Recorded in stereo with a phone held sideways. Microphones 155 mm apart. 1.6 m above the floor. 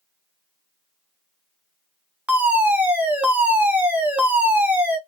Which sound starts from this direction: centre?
A fire alarm, at 2.3 s.